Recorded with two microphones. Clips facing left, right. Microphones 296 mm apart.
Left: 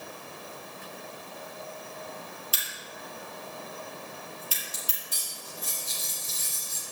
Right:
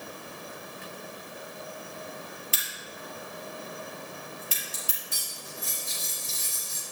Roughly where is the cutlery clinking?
Left.